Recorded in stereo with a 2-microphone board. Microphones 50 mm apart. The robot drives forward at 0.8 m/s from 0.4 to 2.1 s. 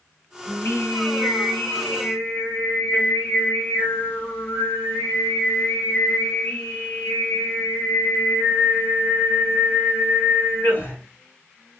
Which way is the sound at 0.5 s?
60° left (ahead or behind).